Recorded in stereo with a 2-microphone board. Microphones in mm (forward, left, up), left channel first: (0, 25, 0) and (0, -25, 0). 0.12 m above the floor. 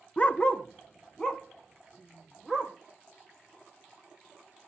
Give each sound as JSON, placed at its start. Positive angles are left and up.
{"t": 0.2, "sound": "a dog barking", "side_deg": 30, "distance_m": 0.5}